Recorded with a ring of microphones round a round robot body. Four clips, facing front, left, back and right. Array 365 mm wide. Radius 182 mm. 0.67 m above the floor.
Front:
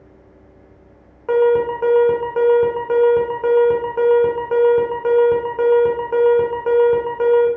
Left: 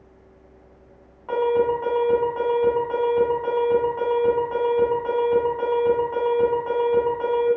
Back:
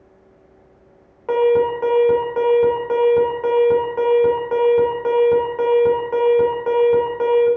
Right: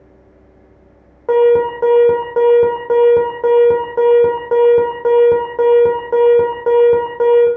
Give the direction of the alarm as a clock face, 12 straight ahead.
3 o'clock.